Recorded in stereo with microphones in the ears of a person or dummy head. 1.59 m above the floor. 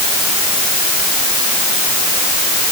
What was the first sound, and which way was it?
Only background noise.